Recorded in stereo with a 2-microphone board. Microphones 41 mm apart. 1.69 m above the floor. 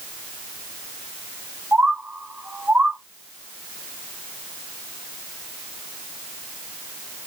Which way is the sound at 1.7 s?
40° right (ahead or behind).